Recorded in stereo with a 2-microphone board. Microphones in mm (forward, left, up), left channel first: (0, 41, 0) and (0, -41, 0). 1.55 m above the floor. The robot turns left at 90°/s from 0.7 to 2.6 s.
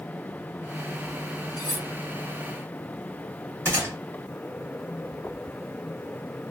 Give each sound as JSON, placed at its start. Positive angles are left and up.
{"t": 1.6, "sound": "cutlery clinking", "side_deg": 45, "distance_m": 1.1}
{"t": 3.6, "sound": "a gunshot", "side_deg": -25, "distance_m": 1.5}